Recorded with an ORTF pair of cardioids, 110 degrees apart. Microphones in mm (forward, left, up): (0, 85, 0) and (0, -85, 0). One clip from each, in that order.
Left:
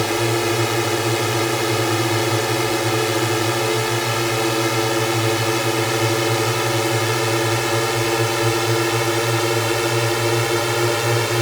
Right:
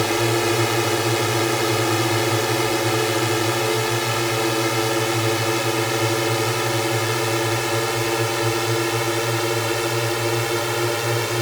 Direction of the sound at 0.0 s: Straight ahead.